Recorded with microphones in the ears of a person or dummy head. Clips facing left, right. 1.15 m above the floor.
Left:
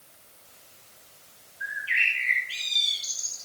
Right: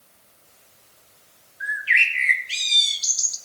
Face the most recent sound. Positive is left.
turn(degrees=-65)  # may be behind; listen again after turning